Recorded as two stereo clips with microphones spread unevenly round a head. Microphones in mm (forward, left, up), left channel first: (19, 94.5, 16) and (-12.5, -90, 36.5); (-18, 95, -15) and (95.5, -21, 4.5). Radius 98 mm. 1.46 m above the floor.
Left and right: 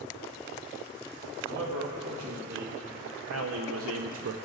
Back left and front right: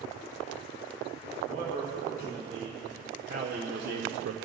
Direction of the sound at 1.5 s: 115° right.